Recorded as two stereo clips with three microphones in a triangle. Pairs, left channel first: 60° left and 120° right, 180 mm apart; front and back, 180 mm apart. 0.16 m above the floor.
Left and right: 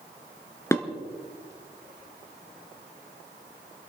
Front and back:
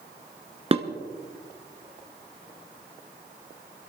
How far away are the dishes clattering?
About 1.2 m.